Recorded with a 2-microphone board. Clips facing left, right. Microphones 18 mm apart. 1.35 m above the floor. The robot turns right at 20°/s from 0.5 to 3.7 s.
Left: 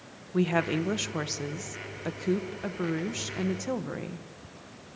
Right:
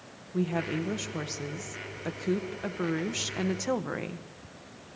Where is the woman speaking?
145° left, 1.0 m; by 4.3 s 155° right, 1.0 m.